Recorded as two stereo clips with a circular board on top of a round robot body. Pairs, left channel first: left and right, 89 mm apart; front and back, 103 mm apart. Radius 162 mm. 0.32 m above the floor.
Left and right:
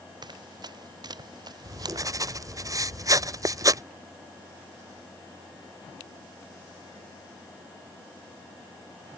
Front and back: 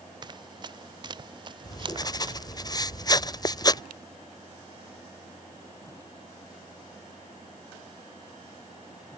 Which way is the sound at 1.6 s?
45° right.